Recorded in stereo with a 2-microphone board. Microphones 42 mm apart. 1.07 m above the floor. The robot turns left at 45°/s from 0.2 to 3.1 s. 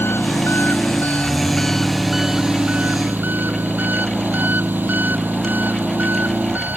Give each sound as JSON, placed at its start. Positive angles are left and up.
{"t": 0.0, "sound": "an engine running", "azimuth_deg": 80}